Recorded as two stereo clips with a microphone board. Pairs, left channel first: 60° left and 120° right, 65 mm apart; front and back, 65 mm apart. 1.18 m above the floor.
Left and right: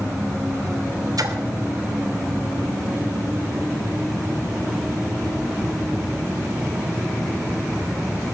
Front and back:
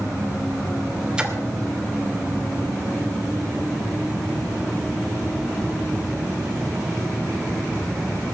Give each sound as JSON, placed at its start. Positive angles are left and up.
{"t": 1.2, "sound": "a splash", "azimuth_deg": -105, "distance_m": 2.5}